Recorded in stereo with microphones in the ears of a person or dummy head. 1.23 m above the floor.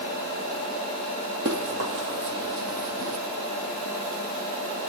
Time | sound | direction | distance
1.4 | running footsteps | 50° right (ahead or behind) | 2 m